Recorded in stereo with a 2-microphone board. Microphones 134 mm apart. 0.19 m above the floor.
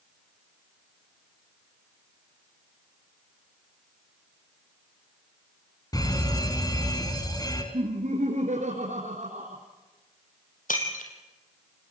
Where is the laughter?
65° right (ahead or behind), 3 m.